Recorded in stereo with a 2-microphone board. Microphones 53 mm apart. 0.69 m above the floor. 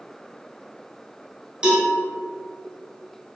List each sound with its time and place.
1.6 s a cowbell: 15° right (ahead or behind), 3 m